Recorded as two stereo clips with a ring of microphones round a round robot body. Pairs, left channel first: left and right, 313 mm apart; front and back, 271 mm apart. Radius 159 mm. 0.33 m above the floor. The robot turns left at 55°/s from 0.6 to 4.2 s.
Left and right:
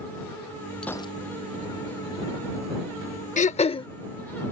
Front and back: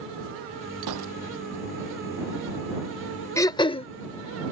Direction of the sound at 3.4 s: 65° left.